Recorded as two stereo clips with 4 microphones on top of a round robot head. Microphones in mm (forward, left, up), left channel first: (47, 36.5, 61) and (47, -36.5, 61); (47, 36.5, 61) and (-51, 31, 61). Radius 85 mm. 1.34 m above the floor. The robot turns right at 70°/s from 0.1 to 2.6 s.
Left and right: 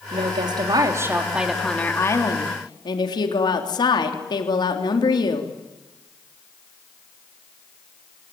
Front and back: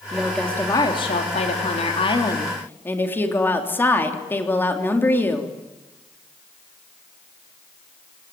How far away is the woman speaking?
About 3 m.